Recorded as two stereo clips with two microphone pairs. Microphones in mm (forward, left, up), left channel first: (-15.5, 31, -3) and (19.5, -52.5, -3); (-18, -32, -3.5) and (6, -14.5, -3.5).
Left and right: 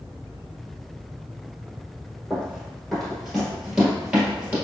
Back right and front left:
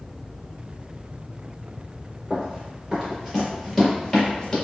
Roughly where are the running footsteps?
Ahead left.